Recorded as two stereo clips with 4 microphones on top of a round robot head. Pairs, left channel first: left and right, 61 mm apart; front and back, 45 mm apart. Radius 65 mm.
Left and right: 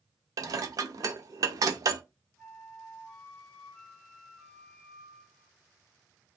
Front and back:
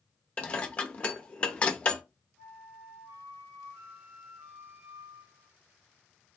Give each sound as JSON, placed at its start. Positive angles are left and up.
{"t": 0.4, "sound": "dishes clattering", "azimuth_deg": -65, "distance_m": 0.6}
{"t": 2.4, "sound": "a flute", "azimuth_deg": 170, "distance_m": 0.7}